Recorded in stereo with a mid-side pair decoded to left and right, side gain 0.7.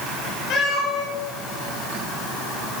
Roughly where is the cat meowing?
Ahead left.